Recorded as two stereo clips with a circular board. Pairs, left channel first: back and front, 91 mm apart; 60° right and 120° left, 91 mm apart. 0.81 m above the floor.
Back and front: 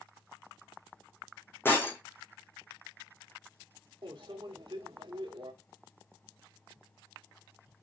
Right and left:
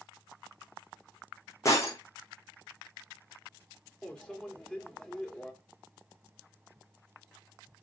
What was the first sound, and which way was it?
Breaking glass, 115° right.